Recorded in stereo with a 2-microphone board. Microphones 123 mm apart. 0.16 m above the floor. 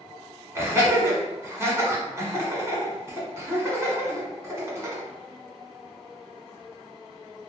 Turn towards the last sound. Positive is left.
turn(degrees=-25)  # may be behind; listen again after turning